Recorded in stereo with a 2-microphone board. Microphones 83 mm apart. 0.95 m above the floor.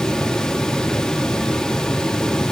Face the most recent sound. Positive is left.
No sound to turn to.